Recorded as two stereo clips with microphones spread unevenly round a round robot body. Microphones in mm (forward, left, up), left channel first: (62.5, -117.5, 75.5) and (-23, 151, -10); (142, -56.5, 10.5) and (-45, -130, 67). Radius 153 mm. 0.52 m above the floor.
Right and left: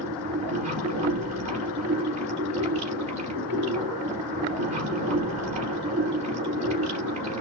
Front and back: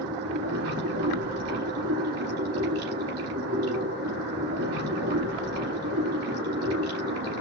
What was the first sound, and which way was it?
Running water, straight behind.